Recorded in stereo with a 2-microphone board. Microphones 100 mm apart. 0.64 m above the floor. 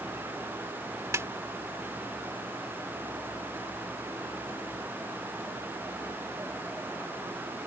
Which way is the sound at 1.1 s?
30° right (ahead or behind).